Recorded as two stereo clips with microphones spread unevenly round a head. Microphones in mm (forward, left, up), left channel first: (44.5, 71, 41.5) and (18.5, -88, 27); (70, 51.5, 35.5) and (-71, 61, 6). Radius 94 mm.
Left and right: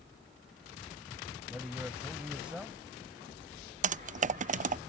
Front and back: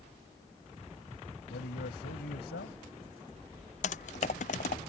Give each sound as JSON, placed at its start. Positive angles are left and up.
{"t": 1.5, "sound": "a man speaking", "azimuth_deg": -15}
{"t": 3.8, "sound": "typing on a keyboard", "azimuth_deg": -60}